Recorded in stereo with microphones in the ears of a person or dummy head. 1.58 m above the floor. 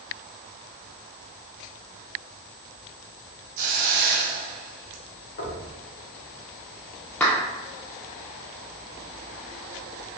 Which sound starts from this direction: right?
A hiss, at 3.6 s.